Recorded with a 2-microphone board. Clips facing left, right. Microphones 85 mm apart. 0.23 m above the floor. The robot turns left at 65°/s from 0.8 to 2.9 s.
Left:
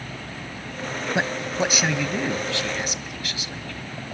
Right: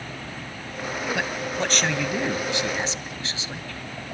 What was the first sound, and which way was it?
A man speaking, 55° left.